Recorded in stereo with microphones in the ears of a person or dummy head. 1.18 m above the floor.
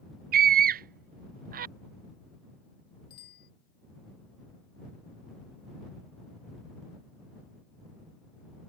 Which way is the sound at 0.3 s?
45° right (ahead or behind).